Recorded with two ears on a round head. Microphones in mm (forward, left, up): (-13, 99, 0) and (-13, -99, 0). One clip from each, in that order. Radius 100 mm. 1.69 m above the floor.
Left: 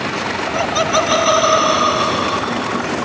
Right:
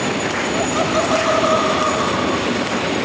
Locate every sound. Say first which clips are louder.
0.5 s laughter: left 4 dB; 55° left (ahead or behind); by 2.9 s 60° left (ahead or behind)